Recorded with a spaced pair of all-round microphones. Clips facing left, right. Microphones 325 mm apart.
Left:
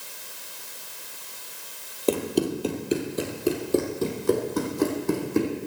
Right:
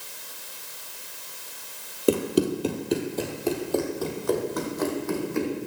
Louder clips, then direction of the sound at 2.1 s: Right 2 dB; 15° right (ahead or behind).